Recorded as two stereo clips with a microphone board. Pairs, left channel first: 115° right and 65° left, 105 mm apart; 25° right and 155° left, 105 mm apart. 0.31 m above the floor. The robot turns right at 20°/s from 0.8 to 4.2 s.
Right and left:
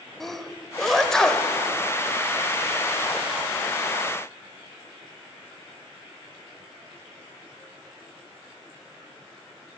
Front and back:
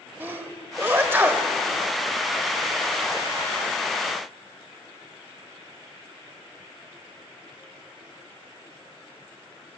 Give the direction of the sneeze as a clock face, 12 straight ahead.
7 o'clock.